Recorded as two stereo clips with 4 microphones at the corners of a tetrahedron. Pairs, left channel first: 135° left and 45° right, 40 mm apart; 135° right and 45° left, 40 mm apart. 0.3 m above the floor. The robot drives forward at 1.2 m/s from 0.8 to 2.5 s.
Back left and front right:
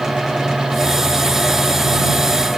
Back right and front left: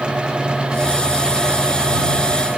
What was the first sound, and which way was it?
Only background noise.